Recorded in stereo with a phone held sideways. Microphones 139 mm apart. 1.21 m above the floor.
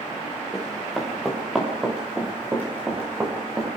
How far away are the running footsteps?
About 6.5 m.